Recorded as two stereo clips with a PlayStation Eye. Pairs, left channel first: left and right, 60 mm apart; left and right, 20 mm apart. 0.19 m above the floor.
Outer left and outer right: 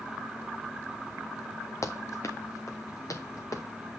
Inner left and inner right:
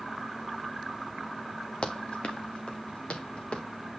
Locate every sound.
1.8 s running footsteps: 55° left (ahead or behind), 1.7 m; by 3.6 s 65° left (ahead or behind), 3 m